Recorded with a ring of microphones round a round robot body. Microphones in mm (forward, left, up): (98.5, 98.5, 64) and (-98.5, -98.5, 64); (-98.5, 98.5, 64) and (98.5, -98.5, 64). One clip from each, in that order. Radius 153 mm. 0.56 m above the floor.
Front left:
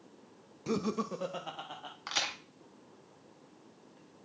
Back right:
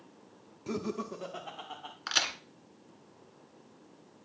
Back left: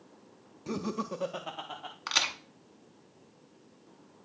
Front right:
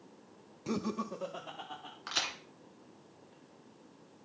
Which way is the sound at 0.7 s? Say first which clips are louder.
Front left 2 dB, back left 2 dB; 5° left.